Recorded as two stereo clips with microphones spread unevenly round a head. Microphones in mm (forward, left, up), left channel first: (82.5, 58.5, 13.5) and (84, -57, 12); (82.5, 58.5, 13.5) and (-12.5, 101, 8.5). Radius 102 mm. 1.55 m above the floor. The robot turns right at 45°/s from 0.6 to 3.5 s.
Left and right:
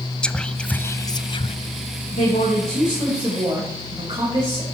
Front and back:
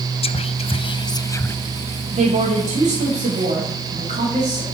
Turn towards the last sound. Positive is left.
turn(degrees=-160)